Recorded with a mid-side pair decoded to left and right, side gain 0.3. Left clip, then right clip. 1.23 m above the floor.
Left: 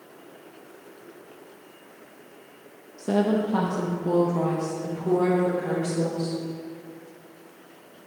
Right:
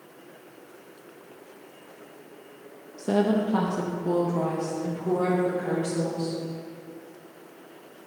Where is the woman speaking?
25° right, 0.8 m; by 6.4 s 15° left, 4 m.